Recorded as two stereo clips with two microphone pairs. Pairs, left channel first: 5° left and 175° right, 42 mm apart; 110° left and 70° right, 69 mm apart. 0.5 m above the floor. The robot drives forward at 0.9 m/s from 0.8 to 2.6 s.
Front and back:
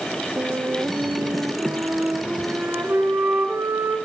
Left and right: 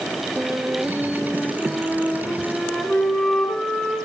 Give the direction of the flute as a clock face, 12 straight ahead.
5 o'clock.